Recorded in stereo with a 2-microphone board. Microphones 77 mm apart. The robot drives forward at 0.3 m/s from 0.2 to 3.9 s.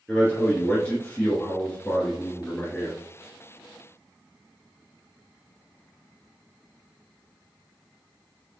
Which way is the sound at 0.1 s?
15° left (ahead or behind).